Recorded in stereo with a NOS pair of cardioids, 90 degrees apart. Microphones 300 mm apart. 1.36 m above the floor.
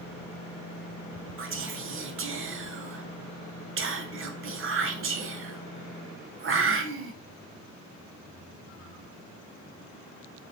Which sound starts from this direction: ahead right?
Whispering, at 1.4 s.